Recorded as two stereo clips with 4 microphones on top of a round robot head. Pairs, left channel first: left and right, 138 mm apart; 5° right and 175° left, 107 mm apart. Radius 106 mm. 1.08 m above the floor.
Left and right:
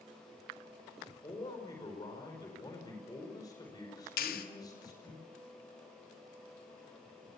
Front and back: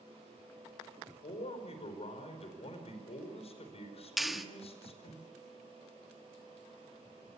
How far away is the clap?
About 1.6 m.